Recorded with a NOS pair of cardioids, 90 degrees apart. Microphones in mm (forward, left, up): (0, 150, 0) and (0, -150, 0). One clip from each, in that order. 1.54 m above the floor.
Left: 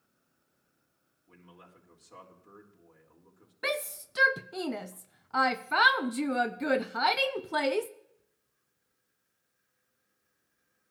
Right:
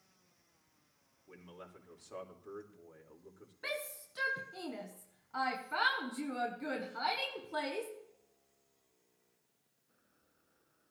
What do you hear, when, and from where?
1.3 s a man speaking: 20° right, 4 m
3.6 s a shout: 50° left, 0.7 m